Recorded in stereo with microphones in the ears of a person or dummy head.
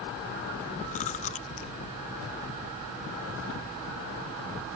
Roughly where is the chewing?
Left.